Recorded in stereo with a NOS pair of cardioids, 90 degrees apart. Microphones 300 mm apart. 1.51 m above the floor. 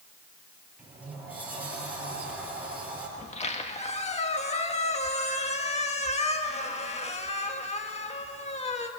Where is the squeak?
20° left, 1.8 m.